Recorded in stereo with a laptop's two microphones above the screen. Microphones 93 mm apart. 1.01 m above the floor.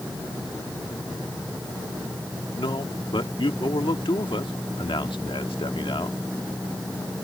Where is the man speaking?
75° left (ahead or behind).